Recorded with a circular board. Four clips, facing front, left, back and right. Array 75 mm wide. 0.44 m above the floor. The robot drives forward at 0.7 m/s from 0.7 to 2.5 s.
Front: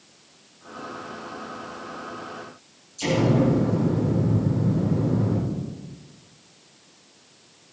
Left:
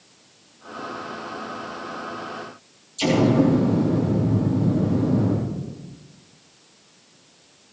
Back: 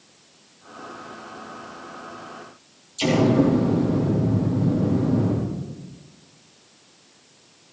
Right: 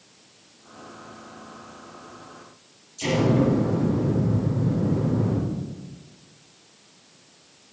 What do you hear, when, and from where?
3.0 s an explosion: 150° left, 9.5 m